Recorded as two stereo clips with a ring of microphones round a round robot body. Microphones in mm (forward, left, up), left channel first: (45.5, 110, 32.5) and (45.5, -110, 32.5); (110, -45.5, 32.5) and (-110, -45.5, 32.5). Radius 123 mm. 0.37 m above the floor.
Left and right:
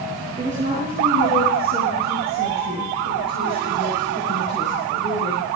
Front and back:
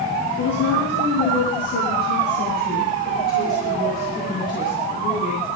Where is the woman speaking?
35° right, 4.5 m; by 5.5 s 55° right, 8.5 m.